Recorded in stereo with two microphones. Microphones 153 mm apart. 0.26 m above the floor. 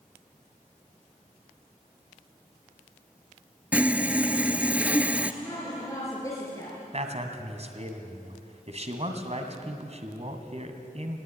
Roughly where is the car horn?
I don't hear a car horn.